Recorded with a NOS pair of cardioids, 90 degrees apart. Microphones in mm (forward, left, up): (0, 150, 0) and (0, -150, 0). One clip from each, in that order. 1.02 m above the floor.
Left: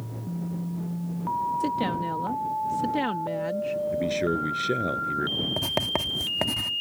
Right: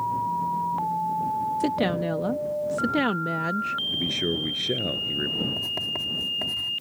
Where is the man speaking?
10° left.